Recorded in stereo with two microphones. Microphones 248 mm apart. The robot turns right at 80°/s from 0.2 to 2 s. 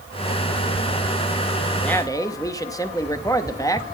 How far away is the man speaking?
About 1.0 m.